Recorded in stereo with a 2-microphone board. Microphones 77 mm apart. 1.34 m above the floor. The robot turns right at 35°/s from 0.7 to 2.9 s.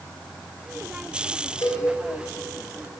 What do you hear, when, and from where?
1.6 s a cowbell: 45° left (ahead or behind), 3 m; by 1.9 s 55° left (ahead or behind), 3 m